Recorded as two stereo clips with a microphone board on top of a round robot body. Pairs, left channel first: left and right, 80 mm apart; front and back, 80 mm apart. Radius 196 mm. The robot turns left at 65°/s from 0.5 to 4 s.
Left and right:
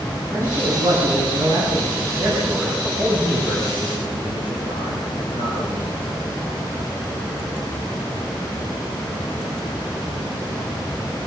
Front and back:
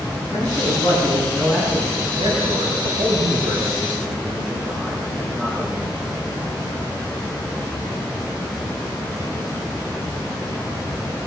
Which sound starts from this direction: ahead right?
A man speaking, at 0.3 s.